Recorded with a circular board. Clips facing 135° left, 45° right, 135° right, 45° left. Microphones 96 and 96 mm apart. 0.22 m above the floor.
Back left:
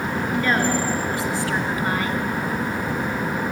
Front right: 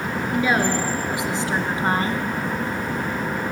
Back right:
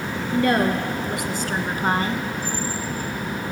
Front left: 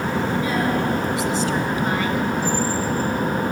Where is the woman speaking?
125° right, 3.5 m; by 2.2 s 85° right, 1.9 m.